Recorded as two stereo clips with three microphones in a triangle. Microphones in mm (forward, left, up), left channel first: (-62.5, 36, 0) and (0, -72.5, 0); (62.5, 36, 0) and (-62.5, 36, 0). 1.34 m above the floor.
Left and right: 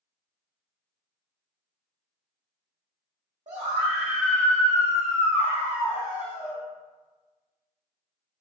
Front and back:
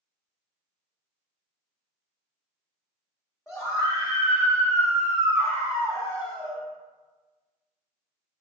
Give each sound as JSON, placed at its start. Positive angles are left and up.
{"t": 3.5, "sound": "a scream", "azimuth_deg": -90, "distance_m": 0.7}